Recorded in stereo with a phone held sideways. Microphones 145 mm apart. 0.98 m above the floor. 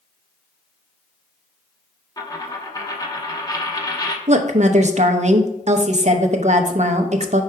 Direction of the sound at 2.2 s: 25° left (ahead or behind).